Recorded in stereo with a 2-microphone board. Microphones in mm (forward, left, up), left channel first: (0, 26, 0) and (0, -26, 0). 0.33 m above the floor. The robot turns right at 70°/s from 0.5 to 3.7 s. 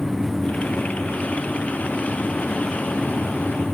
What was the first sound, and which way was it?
Only background noise.